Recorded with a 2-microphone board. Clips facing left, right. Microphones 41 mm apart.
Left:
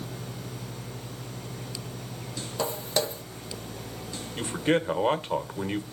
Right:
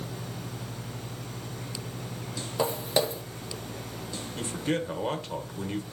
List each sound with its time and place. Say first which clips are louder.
2.6 s footsteps: right 2 dB; 15° right (ahead or behind), 0.6 m
4.4 s a man speaking: left 5 dB; 30° left (ahead or behind), 1.0 m